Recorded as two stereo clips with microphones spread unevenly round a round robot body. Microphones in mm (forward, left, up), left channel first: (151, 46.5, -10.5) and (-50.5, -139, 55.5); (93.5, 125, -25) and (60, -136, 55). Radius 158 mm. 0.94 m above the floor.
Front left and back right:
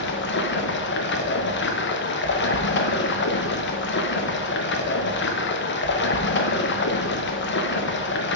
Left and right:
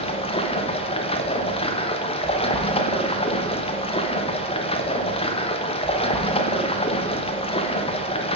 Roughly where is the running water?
Ahead left.